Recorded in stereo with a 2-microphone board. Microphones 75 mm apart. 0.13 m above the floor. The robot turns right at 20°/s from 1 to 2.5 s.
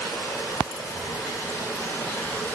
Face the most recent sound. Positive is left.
turn(degrees=160)